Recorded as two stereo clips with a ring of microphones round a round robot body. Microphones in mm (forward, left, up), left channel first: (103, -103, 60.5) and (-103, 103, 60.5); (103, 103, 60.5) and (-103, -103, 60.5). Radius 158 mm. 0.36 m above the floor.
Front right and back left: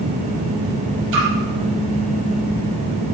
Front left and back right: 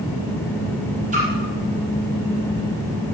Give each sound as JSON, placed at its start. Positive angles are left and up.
{"t": 1.1, "sound": "a splash", "azimuth_deg": 160, "distance_m": 5.5}